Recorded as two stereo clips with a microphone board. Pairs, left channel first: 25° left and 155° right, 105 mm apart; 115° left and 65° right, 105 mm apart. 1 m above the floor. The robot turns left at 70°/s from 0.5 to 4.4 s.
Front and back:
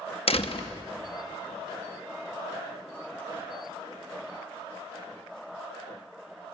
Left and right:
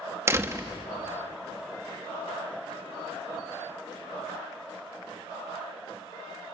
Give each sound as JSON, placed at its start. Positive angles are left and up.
{"t": 0.3, "sound": "a door slam", "azimuth_deg": -5, "distance_m": 1.1}